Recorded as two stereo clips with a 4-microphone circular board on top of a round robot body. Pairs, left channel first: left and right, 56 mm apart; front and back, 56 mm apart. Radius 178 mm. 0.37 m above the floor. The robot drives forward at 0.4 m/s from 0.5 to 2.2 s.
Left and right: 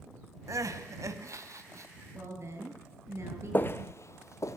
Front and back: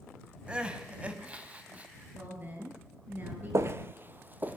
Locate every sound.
0.5 s crying: 110° right, 3 m; by 2.0 s 120° right, 3 m
2.1 s a woman speaking: 125° right, 8 m
3.5 s footsteps: 145° left, 0.6 m; by 4.6 s 120° left, 1.8 m